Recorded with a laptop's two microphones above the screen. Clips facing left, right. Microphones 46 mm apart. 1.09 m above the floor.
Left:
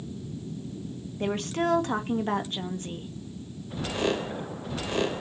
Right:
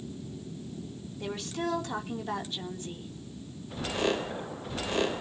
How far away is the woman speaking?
About 1.6 m.